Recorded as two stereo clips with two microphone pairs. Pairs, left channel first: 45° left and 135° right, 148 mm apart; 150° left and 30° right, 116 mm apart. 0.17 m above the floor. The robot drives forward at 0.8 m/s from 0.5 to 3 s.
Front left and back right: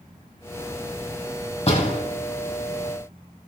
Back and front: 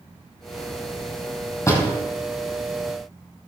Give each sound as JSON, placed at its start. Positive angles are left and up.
{"t": 1.7, "sound": "a door slam", "azimuth_deg": 90, "distance_m": 4.5}